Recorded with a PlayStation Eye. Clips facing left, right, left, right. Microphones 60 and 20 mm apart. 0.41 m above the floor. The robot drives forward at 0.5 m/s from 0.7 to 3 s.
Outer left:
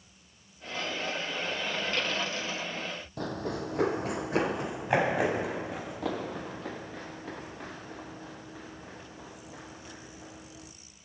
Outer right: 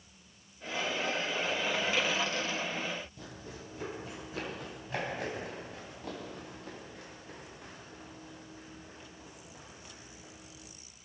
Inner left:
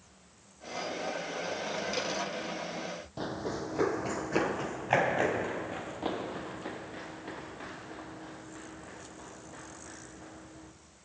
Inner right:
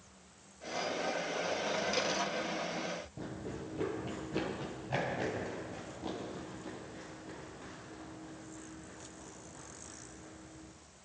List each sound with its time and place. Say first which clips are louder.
3.2 s running footsteps: outer left 13 dB, inner left 7 dB; 70° left (ahead or behind), 0.9 m; by 10.7 s 85° left, 5 m